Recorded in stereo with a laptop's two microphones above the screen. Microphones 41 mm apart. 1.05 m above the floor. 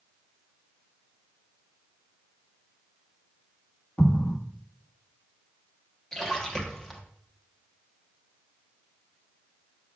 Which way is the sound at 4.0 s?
55° left (ahead or behind).